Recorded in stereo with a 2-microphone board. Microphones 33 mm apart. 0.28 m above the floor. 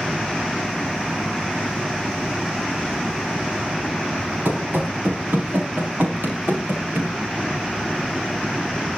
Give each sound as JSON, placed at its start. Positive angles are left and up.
{"t": 4.5, "sound": "running footsteps", "side_deg": -75, "distance_m": 6.0}